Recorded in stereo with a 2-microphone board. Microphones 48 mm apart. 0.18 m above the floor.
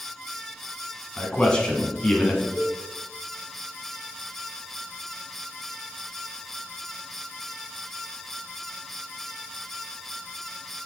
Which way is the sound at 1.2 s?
20° left (ahead or behind).